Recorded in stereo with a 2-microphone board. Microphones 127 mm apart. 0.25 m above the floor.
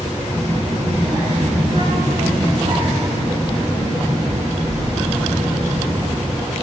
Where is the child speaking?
35° right (ahead or behind), 5 m; by 6.2 s 70° right (ahead or behind), 6.5 m.